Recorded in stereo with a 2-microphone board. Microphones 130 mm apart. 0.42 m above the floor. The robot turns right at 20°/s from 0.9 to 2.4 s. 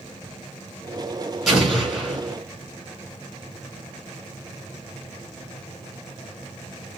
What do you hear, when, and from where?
1.5 s an explosion: centre (ahead or behind), 2 m; by 2.4 s 15° left (ahead or behind), 2 m